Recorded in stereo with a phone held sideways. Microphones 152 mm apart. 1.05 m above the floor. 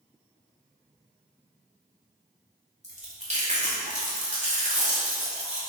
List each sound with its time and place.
2.8 s chewing: 45° right (ahead or behind), 2 m